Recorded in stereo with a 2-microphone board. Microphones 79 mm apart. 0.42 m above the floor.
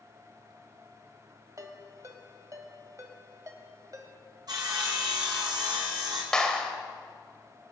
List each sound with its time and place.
1.6 s a ringtone: 45° right (ahead or behind), 1.6 m
4.5 s sawing: 60° right (ahead or behind), 3.5 m
6.3 s a clap: 10° left (ahead or behind), 1.6 m